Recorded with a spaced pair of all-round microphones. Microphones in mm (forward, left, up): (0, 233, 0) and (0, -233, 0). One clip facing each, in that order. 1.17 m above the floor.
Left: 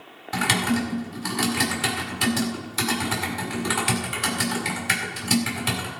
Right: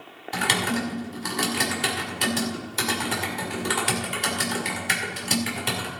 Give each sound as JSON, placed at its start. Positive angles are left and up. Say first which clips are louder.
{"t": 0.3, "sound": "typing on a keyboard", "louder": "left 3 dB", "side_deg": 25, "distance_m": 2.5}